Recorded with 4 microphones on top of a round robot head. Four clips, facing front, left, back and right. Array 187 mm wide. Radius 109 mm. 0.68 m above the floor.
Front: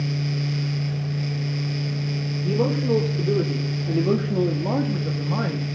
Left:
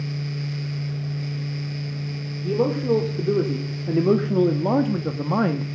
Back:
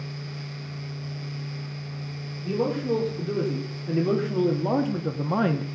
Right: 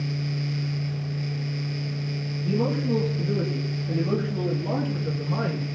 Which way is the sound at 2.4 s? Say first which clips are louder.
Left 4 dB, front 3 dB; 60° left.